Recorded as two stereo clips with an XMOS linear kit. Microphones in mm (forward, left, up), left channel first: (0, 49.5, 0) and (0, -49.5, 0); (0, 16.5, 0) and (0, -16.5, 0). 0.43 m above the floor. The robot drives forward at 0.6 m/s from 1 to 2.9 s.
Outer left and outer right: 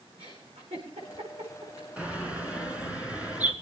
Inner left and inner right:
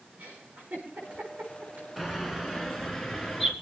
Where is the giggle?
80° right, 8.5 m.